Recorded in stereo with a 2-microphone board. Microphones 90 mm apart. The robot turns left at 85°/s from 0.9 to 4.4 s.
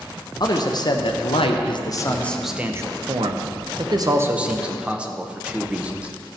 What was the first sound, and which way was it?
A man speaking, 130° left.